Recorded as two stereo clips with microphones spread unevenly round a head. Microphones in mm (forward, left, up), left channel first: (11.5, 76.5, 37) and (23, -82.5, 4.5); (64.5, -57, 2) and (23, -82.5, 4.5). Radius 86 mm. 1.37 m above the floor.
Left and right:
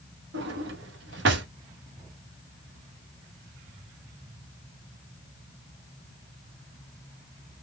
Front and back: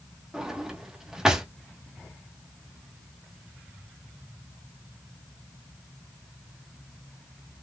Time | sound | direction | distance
0.3 | a drawer | 70° right | 0.9 m